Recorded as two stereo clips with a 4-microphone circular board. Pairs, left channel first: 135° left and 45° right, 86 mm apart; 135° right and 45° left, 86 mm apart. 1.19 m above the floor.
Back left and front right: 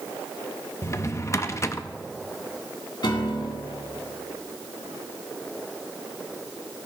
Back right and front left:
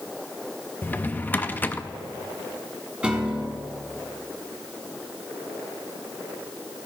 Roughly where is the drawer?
Behind.